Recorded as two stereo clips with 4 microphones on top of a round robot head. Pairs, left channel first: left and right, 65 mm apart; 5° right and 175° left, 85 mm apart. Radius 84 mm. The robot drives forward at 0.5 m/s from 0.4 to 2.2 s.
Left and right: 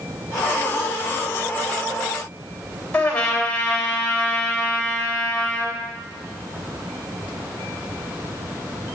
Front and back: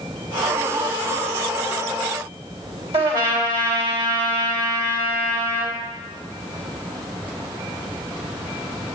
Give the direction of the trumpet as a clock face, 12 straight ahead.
7 o'clock.